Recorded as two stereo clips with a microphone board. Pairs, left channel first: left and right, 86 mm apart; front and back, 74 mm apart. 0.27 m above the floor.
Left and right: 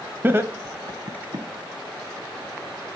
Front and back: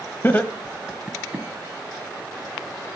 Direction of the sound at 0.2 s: 40° right.